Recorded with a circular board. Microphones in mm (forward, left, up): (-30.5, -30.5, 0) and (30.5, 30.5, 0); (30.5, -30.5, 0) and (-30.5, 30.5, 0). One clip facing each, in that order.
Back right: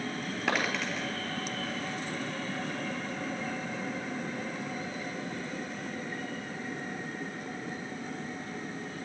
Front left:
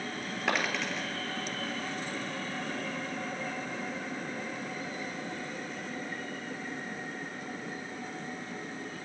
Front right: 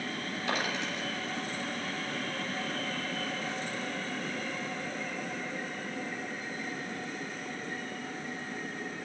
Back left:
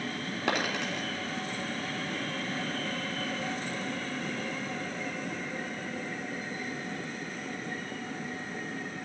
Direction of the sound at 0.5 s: 135° left.